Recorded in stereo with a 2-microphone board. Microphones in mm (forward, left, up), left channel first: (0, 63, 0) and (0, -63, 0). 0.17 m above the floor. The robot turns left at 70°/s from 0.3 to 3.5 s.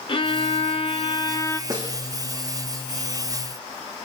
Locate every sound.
0.1 s a violin: 115° left, 1.0 m; by 1.6 s 25° left, 1.0 m
1.7 s a snare drum: 30° right (ahead or behind), 4 m; by 1.9 s 45° right (ahead or behind), 4 m